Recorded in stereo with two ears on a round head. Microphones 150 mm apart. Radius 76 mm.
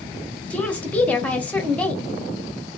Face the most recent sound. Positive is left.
turn(degrees=10)  # may be behind; listen again after turning